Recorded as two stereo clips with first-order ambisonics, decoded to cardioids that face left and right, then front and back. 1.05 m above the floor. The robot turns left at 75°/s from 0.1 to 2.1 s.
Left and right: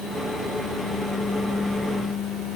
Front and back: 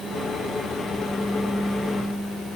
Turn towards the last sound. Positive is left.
No sound to turn to.